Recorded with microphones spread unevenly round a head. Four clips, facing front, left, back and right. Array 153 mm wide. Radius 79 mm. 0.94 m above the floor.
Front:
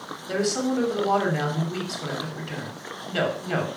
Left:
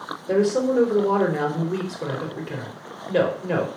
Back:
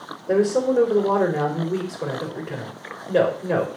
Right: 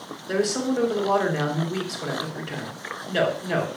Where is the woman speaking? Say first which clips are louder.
Left 4 dB, back 6 dB; 155° left, 4.5 m.